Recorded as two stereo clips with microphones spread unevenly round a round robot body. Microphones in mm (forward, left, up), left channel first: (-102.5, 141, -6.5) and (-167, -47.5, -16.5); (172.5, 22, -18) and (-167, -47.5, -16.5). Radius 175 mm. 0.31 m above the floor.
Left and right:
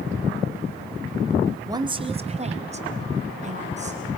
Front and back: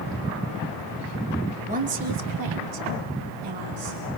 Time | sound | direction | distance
1.7 | a woman speaking | 125° right | 1.1 m